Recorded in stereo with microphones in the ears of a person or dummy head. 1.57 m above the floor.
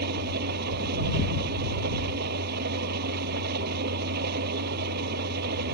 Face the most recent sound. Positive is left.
turn(degrees=-55)  # may be behind; listen again after turning